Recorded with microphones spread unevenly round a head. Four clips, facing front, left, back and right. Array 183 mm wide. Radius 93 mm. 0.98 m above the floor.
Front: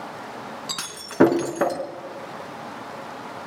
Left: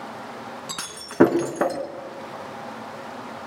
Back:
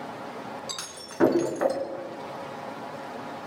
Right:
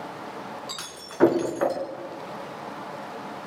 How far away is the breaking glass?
About 4 m.